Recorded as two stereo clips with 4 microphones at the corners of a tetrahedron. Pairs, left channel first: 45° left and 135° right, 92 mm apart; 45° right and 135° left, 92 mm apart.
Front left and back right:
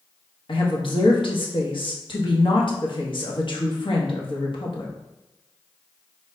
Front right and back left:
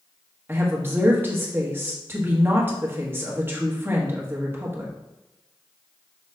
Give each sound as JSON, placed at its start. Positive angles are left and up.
{"t": 0.5, "sound": "a woman speaking", "azimuth_deg": 70, "distance_m": 1.3}